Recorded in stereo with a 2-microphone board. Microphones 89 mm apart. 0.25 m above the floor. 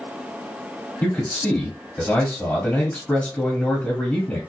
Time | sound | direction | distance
1.0 | a man speaking | 15° left (ahead or behind) | 1.5 m